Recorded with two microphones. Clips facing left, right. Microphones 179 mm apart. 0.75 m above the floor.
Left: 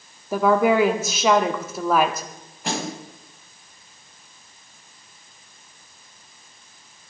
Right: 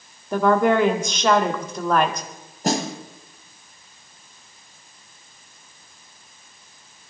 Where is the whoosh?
No whoosh in this recording.